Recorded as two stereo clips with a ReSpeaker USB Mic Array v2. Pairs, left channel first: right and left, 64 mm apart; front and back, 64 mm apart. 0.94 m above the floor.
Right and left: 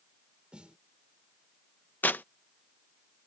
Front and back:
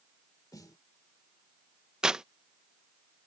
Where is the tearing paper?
110° right.